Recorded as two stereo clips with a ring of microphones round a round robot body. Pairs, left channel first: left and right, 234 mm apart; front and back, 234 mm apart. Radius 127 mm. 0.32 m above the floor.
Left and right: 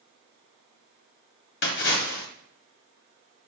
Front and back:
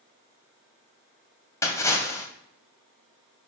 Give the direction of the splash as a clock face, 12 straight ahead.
10 o'clock.